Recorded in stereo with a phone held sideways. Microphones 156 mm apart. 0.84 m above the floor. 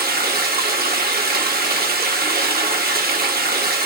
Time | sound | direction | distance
0.0 | running water | 75° right (ahead or behind) | 0.9 m